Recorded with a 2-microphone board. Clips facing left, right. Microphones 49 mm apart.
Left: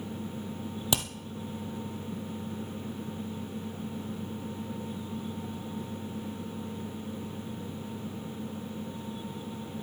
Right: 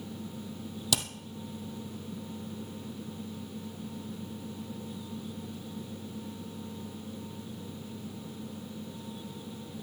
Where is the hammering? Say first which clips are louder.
Left 2 dB; 25° left (ahead or behind), 1.7 m.